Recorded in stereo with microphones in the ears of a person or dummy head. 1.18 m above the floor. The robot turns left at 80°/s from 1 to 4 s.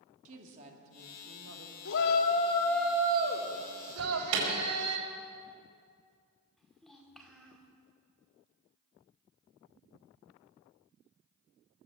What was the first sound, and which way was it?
A woman speaking, 30° right.